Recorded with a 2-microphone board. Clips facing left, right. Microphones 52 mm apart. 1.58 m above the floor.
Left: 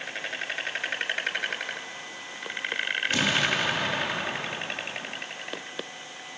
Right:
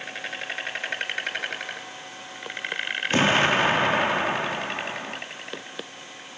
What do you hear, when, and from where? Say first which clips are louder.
3.1 s an explosion: right 7 dB; 35° right (ahead or behind), 1.5 m